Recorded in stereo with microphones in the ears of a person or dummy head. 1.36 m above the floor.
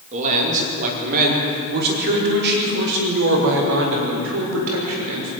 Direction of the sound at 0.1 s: 40° right (ahead or behind).